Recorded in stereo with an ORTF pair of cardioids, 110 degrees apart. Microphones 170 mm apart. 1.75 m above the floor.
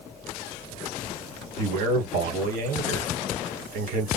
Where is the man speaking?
65° right, 1.5 m.